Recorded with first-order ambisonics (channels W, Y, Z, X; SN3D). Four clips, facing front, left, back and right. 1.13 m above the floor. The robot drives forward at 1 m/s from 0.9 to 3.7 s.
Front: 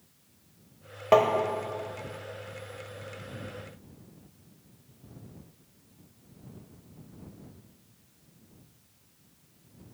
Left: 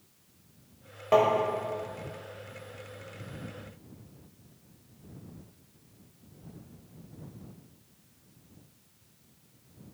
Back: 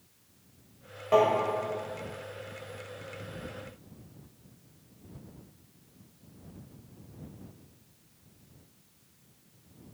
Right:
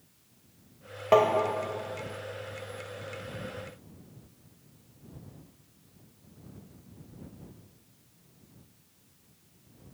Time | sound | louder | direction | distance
1.1 | tapping | right 1 dB, front 2 dB | 25° right | 1.0 m